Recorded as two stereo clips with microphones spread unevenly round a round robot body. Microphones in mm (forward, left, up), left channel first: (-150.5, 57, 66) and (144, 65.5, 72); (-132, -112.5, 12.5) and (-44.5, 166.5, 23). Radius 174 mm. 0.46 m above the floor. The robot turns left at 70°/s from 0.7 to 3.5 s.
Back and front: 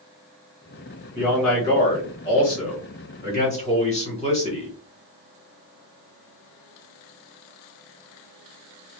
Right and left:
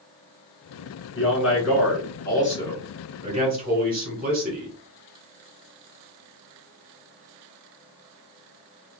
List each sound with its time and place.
1.1 s a man speaking: 70° right, 2.0 m; by 4.7 s 125° left, 2.0 m